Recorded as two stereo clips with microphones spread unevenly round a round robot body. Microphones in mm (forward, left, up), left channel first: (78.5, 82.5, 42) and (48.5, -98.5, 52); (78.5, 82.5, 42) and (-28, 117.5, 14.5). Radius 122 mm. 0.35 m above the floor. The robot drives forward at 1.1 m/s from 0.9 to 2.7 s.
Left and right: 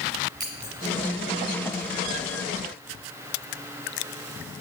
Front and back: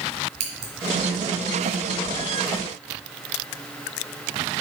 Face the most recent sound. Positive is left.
turn(degrees=175)